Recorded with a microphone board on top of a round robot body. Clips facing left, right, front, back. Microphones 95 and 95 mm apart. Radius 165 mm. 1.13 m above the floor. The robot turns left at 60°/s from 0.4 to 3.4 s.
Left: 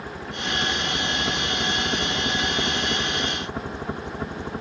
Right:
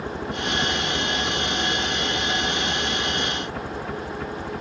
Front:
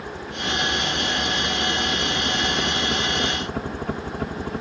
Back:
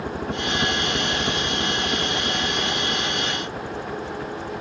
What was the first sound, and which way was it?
A helicopter, 155° right.